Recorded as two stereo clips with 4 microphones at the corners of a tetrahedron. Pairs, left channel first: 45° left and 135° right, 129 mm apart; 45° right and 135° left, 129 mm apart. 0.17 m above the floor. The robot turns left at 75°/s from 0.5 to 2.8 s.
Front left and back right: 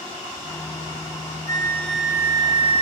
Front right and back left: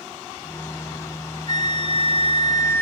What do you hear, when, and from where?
1.5 s a flute: 10° right, 0.9 m; by 2.8 s 110° right, 0.9 m